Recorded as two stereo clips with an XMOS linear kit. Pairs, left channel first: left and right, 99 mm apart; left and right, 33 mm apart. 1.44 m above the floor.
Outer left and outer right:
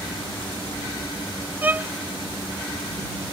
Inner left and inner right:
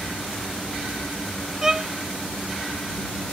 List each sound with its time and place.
1.6 s a violin: 20° right (ahead or behind)